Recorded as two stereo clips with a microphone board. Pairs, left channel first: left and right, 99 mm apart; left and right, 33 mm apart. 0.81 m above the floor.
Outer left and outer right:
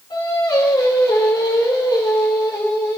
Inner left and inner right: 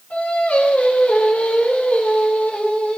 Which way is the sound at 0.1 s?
50° left (ahead or behind).